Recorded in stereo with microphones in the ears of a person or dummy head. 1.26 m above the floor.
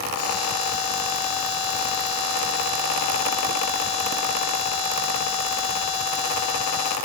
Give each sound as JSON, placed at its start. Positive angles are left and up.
{"t": 0.2, "sound": "a buzzer", "side_deg": 25, "distance_m": 4.0}